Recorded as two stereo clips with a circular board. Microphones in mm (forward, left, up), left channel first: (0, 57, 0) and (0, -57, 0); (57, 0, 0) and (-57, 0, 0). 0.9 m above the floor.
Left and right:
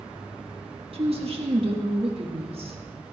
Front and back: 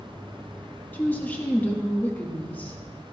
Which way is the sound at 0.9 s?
75° right.